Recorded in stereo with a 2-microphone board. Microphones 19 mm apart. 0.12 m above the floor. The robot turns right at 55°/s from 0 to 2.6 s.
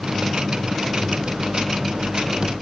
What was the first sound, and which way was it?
Only background noise.